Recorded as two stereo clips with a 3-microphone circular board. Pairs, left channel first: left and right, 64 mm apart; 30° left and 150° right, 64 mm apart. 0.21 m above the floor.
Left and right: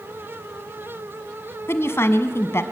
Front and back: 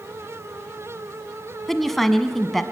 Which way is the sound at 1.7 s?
115° left.